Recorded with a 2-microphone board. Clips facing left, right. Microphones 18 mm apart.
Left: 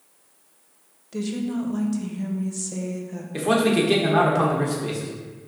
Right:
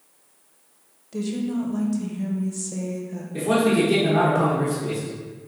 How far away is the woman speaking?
About 0.6 m.